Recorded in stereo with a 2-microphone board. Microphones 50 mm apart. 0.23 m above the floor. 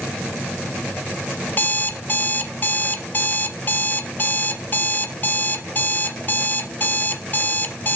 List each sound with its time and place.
1.5 s an alarm clock: 40° left (ahead or behind), 0.7 m